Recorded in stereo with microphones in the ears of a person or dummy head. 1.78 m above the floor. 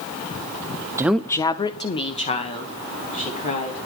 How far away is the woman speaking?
About 0.5 m.